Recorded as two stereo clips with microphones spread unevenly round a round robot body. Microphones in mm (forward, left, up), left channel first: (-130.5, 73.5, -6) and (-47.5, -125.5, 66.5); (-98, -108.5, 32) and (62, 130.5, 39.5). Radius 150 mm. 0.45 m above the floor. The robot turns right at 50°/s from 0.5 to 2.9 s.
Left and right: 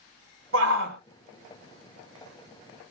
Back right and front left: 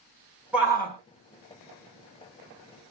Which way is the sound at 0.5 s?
30° right.